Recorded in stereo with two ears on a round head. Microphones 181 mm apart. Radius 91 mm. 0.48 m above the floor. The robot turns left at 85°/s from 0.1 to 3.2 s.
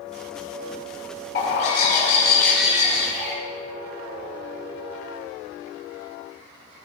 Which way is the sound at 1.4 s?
105° left.